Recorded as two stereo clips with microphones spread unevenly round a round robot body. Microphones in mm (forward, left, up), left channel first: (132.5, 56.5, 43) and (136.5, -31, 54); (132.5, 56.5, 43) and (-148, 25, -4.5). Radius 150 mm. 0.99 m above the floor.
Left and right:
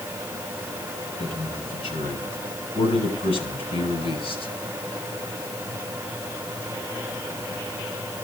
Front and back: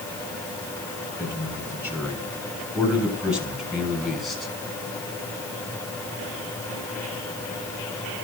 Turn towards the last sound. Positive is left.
turn(degrees=95)